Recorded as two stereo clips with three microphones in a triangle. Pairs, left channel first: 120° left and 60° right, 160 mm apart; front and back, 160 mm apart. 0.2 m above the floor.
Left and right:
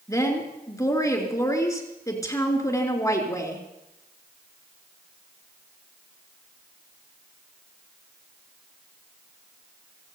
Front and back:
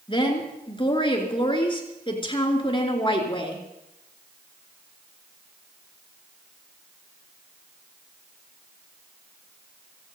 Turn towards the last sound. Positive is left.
turn(degrees=55)